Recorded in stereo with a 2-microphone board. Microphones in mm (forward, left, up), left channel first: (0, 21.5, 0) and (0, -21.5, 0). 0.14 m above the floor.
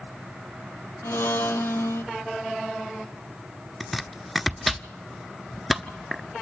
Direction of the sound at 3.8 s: Centre (ahead or behind).